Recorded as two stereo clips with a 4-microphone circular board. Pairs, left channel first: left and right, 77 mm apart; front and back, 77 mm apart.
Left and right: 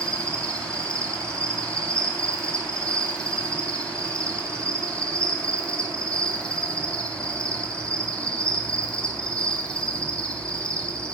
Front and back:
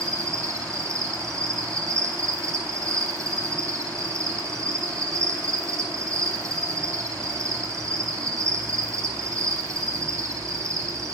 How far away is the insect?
About 0.7 m.